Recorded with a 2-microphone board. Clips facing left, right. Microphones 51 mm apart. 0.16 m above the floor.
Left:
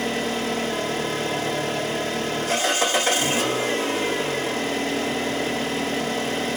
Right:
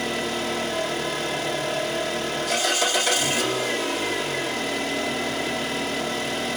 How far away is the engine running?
About 4.5 m.